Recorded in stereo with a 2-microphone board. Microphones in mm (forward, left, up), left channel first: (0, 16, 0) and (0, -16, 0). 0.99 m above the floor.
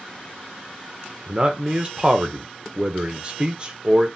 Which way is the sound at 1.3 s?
30° right (ahead or behind).